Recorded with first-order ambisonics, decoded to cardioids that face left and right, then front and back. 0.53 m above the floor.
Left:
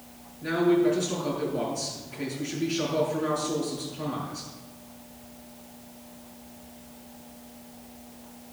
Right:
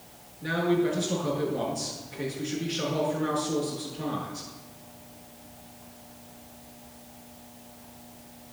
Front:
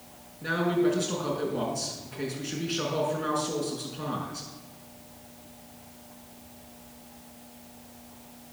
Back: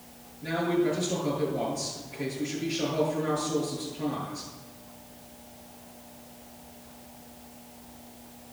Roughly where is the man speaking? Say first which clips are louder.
Left 3 dB, front 1 dB; ahead.